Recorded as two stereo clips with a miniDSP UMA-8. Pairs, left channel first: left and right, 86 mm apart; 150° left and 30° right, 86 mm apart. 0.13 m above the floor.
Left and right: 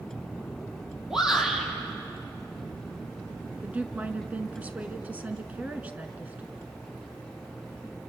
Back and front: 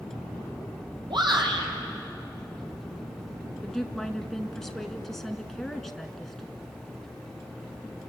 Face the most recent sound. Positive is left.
turn(degrees=-130)